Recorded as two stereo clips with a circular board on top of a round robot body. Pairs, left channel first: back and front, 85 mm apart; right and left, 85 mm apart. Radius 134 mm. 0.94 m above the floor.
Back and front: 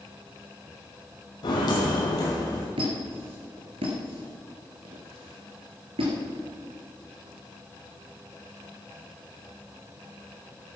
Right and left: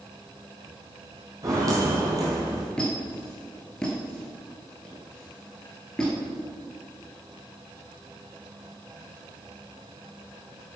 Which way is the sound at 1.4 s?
140° left.